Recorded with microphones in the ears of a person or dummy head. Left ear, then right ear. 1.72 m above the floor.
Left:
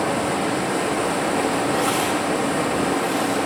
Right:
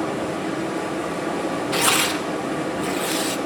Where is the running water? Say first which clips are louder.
Left 4 dB; 50° left (ahead or behind), 0.8 m.